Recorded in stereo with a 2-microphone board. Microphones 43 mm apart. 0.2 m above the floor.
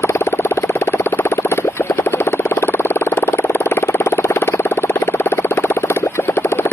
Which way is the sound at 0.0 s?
70° left (ahead or behind).